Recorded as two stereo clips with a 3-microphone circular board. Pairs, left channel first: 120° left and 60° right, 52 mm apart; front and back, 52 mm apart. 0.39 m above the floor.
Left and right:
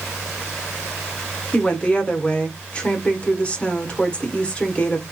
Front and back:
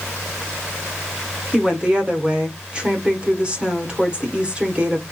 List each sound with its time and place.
1.5 s a woman speaking: 145° left, 1.1 m